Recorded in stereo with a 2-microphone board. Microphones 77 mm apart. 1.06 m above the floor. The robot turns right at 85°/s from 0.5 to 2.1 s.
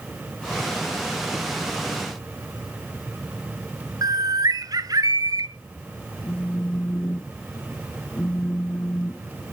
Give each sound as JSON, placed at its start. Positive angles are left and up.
{"t": 4.0, "sound": "a bird", "side_deg": -55, "distance_m": 0.7}
{"t": 6.2, "sound": "a phone buzzing", "side_deg": 30, "distance_m": 0.7}